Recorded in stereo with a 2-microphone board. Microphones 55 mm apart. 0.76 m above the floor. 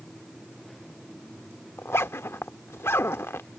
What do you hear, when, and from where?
1.8 s a zipper: 50° left (ahead or behind)